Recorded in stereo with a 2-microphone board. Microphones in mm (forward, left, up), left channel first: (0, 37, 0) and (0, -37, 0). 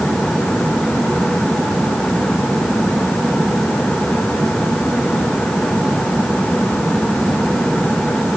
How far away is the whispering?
I don't hear whispering.